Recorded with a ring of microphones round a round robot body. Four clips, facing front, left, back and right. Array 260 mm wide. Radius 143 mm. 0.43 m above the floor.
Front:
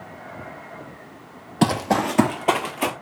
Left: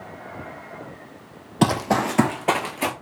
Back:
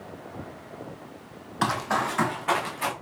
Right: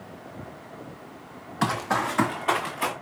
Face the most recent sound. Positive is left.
turn(degrees=40)